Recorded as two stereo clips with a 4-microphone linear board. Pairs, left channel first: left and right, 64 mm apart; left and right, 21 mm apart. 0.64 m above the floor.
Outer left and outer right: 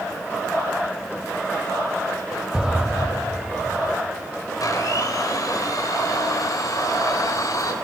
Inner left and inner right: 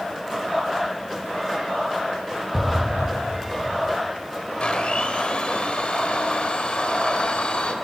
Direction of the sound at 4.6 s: 70° left (ahead or behind).